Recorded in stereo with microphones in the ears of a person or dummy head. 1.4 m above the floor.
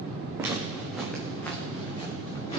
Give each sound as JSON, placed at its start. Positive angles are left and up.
{"t": 0.4, "sound": "footsteps", "side_deg": -10, "distance_m": 3.5}